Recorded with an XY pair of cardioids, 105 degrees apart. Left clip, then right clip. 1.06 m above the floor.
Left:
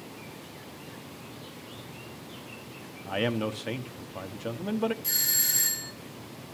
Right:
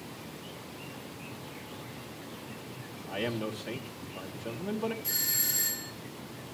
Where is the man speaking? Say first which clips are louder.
Left 5 dB; 55° left, 1.3 m.